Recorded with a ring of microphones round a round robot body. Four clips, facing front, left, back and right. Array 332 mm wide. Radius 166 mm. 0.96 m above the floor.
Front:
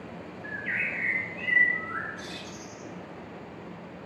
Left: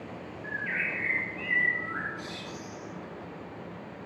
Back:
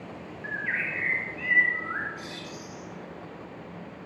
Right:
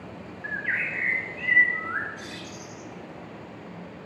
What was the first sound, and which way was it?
A bird, 110° right.